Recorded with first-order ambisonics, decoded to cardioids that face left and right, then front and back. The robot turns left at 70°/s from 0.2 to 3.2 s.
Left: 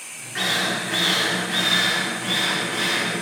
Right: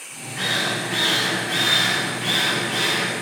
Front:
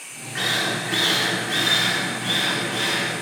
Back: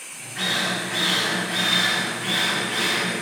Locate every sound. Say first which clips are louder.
0.3 s a drill: even, front 1 dB; 45° left, 3 m; by 3.1 s 150° right, 3 m